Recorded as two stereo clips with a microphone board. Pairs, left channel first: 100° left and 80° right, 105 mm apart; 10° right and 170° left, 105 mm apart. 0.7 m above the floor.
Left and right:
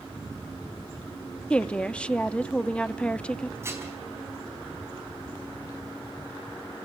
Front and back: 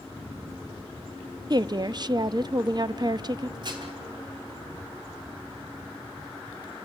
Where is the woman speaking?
170° left, 0.6 m.